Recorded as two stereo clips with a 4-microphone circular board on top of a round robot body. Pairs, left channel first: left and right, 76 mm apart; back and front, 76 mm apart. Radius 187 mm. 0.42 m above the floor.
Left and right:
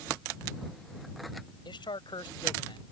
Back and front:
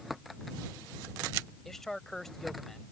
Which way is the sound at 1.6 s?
95° left.